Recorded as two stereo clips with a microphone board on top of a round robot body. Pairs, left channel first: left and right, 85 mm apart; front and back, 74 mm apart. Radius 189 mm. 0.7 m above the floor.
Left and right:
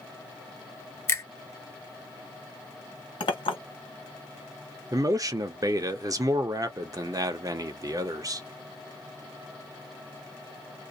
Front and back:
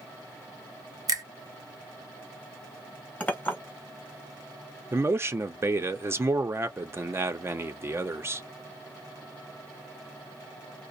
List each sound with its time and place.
1.1 s a finger snap: 150° left, 1.4 m
3.2 s a clink: 75° left, 1.5 m
4.9 s a man speaking: 130° right, 0.8 m